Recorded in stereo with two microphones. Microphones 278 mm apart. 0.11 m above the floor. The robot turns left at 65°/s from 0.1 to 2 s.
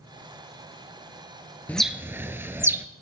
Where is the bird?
5° left (ahead or behind), 0.5 m; by 2.9 s 10° right (ahead or behind), 0.5 m.